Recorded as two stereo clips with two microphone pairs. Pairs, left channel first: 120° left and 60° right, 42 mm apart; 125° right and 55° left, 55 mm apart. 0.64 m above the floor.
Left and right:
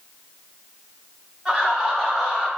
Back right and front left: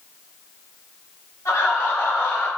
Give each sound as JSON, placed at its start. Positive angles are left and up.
{"t": 1.4, "sound": "laughter", "azimuth_deg": -130, "distance_m": 1.5}